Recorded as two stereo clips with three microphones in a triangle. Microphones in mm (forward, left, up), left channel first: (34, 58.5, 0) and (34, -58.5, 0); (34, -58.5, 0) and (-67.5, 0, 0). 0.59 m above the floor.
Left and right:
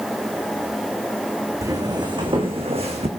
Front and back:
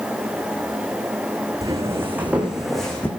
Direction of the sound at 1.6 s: 150° right.